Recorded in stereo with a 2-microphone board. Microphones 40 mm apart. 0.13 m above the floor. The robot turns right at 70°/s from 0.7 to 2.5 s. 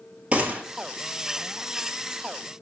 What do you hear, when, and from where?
0.3 s a gunshot: 35° right (ahead or behind), 1.2 m